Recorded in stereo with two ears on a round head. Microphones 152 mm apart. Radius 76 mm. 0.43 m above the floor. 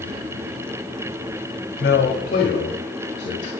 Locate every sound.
1.8 s a man speaking: 60° left (ahead or behind), 2.5 m; by 3.5 s 40° left (ahead or behind), 2.5 m